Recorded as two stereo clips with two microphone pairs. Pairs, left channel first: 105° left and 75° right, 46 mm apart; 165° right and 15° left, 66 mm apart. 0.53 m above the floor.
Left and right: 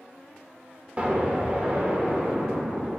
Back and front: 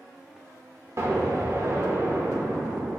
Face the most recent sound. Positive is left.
turn(degrees=-20)